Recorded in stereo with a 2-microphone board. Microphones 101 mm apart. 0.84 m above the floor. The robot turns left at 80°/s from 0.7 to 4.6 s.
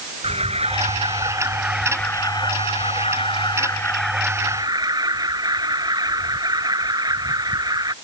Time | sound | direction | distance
0.2 | an alarm | 90° right | ?